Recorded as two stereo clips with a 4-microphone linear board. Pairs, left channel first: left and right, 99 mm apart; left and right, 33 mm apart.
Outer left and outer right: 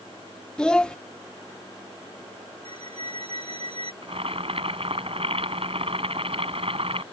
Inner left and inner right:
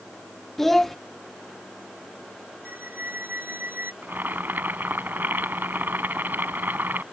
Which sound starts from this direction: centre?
A child speaking, at 0.6 s.